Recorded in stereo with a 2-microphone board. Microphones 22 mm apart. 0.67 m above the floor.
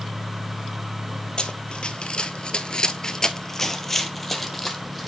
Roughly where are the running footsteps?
Left.